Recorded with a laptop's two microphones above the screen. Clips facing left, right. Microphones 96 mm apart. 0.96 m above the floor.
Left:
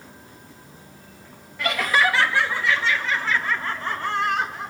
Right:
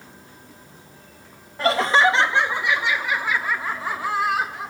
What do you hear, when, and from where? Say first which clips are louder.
1.6 s laughter: right 4 dB; 35° right (ahead or behind), 1.0 m; by 4.7 s 5° right (ahead or behind), 3 m